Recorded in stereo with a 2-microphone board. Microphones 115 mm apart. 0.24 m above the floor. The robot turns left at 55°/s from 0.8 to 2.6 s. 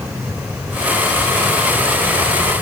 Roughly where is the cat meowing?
I don't hear a cat meowing.